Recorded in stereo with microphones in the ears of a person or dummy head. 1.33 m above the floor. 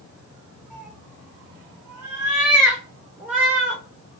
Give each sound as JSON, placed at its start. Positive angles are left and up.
{"t": 0.7, "sound": "a cat meowing", "side_deg": -5, "distance_m": 3.5}